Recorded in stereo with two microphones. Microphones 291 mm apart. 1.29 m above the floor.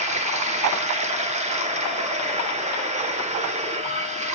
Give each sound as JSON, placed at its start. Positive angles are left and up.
{"t": 0.0, "sound": "running water", "side_deg": -25, "distance_m": 1.0}